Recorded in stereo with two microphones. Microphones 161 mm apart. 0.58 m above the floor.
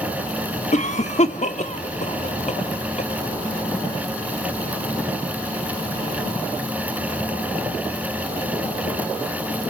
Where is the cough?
45° left (ahead or behind), 0.9 m.